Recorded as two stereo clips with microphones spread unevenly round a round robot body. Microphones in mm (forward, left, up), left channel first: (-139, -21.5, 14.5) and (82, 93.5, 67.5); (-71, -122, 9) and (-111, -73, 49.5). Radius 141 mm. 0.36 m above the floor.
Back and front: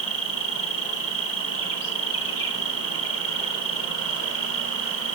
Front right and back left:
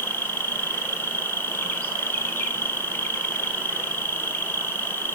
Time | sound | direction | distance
0.0 | an insect | 110° right | 2 m